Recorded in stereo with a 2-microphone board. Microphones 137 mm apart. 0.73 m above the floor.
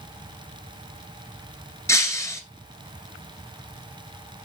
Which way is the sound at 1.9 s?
20° left (ahead or behind).